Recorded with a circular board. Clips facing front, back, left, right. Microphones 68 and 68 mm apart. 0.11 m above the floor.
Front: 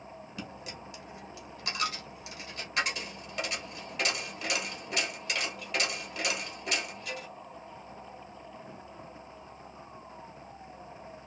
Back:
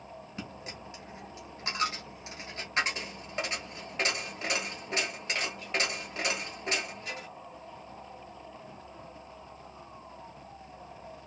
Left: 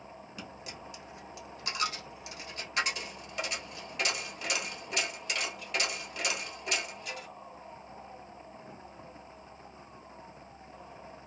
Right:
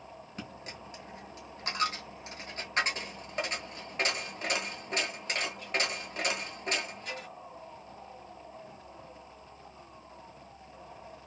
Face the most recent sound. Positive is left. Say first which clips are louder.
# even, right 2 dB
turn(degrees=-130)